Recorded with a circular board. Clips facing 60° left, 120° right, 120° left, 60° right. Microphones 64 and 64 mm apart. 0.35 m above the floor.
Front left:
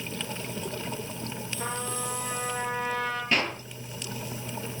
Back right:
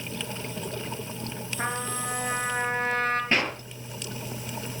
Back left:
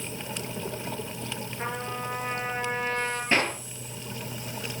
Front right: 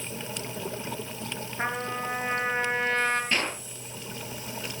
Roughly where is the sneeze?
No sneeze in this recording.